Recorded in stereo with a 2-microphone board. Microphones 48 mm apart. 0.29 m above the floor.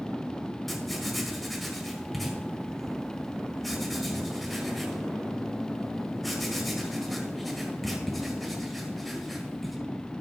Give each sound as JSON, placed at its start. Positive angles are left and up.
{"t": 0.7, "sound": "writing", "side_deg": 0, "distance_m": 1.5}